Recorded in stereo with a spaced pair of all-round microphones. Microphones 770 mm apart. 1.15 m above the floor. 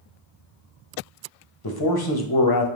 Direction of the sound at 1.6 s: 30° left (ahead or behind).